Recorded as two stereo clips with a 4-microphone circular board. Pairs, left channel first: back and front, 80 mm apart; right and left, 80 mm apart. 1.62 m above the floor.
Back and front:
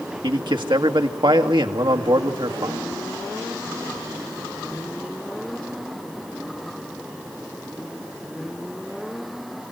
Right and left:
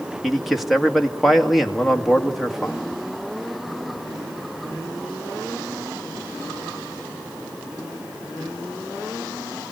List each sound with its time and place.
0.2 s a man speaking: straight ahead, 2 m